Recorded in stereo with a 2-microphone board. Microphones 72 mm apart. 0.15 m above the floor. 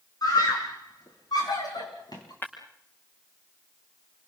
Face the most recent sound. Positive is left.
turn(degrees=30)  # may be behind; listen again after turning